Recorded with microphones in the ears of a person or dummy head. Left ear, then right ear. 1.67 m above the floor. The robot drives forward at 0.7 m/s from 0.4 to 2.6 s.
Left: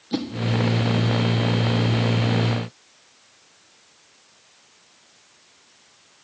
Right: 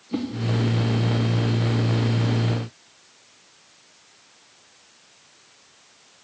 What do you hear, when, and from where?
0.1 s a whoosh: 30° left (ahead or behind), 0.9 m